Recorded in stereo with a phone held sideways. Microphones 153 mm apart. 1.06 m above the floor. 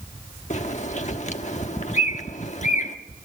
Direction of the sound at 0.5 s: 50° left (ahead or behind).